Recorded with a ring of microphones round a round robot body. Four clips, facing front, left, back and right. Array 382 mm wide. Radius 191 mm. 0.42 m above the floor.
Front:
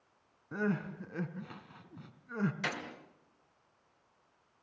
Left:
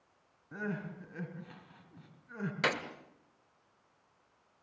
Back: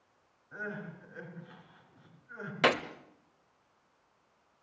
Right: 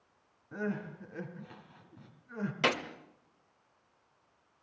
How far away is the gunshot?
About 1.6 m.